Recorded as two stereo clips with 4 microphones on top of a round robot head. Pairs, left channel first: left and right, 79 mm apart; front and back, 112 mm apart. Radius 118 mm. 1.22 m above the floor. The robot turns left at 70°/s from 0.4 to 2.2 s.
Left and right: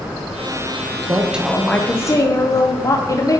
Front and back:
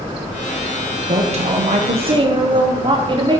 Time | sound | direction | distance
1.1 | a woman speaking | 150° right | 1.1 m